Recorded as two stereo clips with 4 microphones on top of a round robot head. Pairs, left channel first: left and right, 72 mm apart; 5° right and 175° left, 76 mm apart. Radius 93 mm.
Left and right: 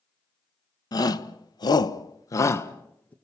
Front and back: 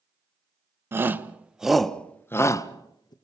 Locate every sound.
0.9 s a shout: 120° left, 1.6 m; by 3.1 s 20° left, 1.5 m